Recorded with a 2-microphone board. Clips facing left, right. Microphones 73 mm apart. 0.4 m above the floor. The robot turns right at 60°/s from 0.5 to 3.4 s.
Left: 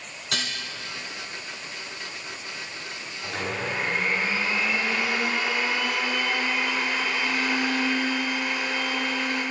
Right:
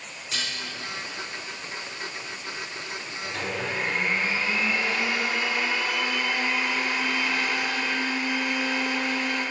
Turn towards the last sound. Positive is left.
turn(degrees=75)  # may be behind; listen again after turning